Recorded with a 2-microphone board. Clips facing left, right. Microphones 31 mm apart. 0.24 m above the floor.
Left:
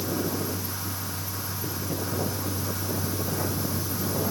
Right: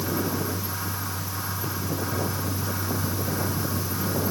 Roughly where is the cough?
I don't hear a cough.